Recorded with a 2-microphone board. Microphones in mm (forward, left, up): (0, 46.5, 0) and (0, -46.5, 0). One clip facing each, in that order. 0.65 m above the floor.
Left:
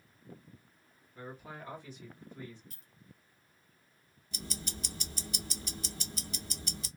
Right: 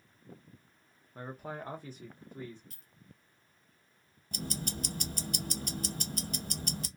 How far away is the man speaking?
About 0.7 m.